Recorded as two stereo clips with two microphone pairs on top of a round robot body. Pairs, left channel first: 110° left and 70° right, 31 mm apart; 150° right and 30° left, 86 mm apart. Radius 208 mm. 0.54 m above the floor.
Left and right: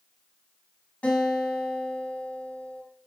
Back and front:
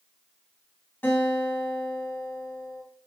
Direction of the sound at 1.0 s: 140° left.